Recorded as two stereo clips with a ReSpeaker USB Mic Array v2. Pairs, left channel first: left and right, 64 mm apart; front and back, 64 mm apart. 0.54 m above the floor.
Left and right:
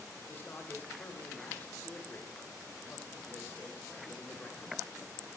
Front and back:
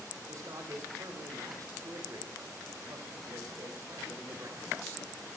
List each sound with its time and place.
0.3 s a man speaking: 150° left, 2.5 m